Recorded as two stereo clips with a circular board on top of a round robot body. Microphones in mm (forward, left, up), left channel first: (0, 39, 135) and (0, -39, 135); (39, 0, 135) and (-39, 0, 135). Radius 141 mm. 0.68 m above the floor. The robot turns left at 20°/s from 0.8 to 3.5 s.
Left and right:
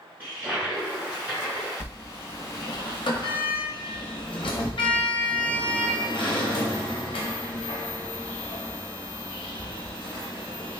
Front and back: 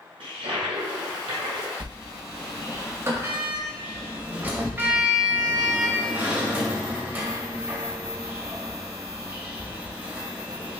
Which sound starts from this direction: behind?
A toilet flushing, at 0.2 s.